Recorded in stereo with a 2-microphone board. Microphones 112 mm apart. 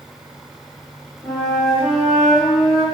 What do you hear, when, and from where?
1.2 s a flute: 5° left (ahead or behind), 1.5 m